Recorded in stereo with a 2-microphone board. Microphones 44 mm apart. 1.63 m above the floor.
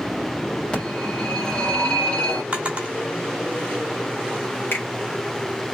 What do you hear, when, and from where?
0.7 s a phone ringing: 25° left (ahead or behind), 2.0 m
2.5 s a drawer: 30° right (ahead or behind), 1.3 m
4.7 s a finger snap: 55° left (ahead or behind), 1.6 m